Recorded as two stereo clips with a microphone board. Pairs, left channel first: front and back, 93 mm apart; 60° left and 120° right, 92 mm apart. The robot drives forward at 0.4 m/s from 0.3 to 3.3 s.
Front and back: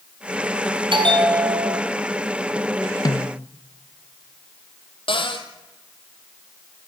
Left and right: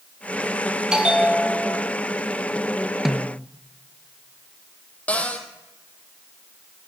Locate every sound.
0.9 s a bell: 160° left, 2.5 m
3.0 s a snare drum: 35° right, 0.9 m; by 3.5 s 40° right, 0.8 m
5.1 s a cupboard door: 15° right, 2.5 m